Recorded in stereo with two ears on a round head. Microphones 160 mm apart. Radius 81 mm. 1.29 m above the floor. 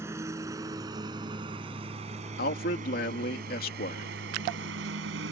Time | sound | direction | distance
0.0 | a lawn mower | 15° right (ahead or behind) | ?
2.4 | a man speaking | 55° left (ahead or behind) | ?